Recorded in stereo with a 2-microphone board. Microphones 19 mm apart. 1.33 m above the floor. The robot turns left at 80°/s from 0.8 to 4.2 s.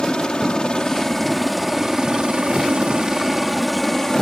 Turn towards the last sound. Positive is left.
turn(degrees=40)  # may be behind; listen again after turning